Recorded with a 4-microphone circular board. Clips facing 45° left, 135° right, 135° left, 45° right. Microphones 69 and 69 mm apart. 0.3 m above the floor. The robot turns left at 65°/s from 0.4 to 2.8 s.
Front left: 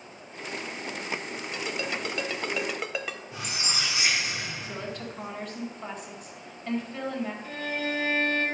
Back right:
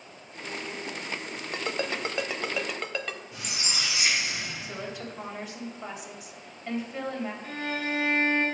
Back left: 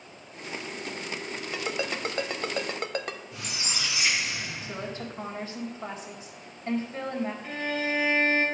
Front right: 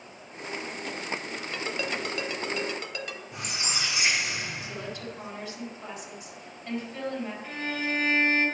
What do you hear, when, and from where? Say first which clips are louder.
1.5 s a ringtone: back right 2 dB, back left 1 dB; 150° right, 0.6 m; by 3.2 s 130° left, 0.6 m
3.3 s a squeak: front left 2 dB, front right 2 dB; 10° right, 2.5 m
4.6 s a woman speaking: front left 1 dB, back left 1 dB; 150° left, 1.8 m
7.4 s a violin: even, back left 2 dB; 130° right, 2.5 m